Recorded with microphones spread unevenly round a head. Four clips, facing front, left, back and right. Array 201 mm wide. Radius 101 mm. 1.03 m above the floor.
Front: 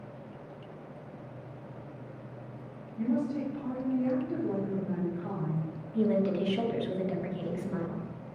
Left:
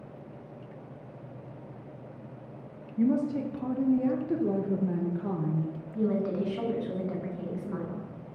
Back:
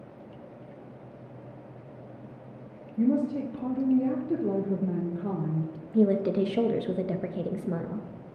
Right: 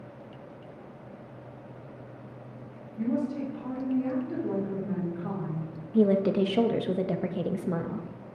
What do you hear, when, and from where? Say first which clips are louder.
3.0 s a woman speaking: left 3 dB, back 5 dB; 155° left, 0.7 m
5.9 s a woman speaking: right 6 dB, back 4 dB; 130° right, 0.7 m